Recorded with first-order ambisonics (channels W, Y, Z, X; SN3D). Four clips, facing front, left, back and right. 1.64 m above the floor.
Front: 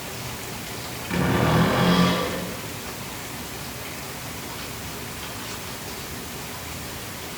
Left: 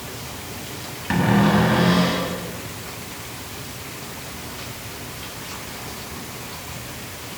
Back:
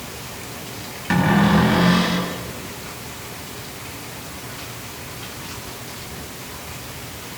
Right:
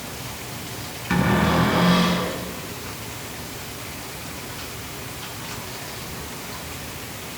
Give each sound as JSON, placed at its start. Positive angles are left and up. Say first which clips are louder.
{"t": 1.1, "sound": "a cupboard door", "louder": "left 2 dB, back 5 dB", "azimuth_deg": 145, "distance_m": 6.5}